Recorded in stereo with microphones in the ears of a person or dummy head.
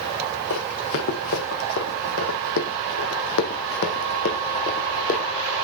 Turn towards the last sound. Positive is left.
turn(degrees=40)  # may be behind; listen again after turning